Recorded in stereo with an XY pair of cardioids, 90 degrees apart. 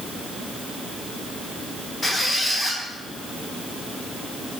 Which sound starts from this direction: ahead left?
A squeak, at 2.0 s.